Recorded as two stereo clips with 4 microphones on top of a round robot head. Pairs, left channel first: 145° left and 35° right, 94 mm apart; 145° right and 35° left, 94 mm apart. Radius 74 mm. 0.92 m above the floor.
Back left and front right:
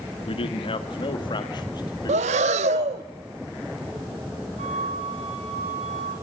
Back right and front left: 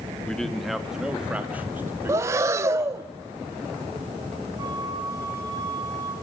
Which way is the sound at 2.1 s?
30° right.